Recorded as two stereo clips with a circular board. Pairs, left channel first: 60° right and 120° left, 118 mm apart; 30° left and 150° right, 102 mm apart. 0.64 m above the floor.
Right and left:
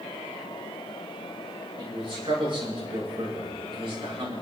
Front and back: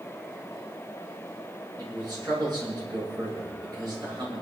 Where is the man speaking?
165° left, 7.5 m.